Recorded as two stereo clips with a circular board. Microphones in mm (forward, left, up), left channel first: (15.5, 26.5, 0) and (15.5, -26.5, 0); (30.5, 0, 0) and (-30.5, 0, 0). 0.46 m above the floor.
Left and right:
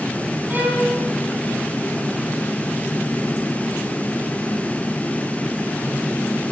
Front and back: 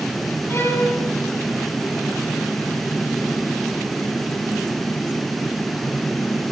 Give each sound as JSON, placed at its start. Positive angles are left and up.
{"t": 0.5, "sound": "a violin", "azimuth_deg": -40, "distance_m": 5.5}